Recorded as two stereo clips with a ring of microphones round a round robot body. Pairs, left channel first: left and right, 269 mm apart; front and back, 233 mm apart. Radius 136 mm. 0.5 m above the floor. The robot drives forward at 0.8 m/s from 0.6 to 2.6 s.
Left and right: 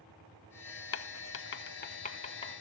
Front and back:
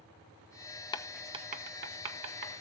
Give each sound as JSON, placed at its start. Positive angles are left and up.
{"t": 0.9, "sound": "writing", "azimuth_deg": 65, "distance_m": 0.5}